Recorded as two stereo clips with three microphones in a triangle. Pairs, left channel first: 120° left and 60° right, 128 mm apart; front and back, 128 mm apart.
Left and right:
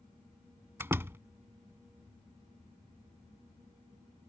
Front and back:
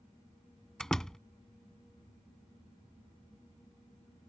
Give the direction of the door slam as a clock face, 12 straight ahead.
3 o'clock.